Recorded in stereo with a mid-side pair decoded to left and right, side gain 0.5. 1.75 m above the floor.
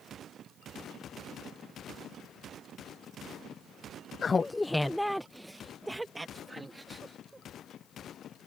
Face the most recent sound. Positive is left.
turn(degrees=-20)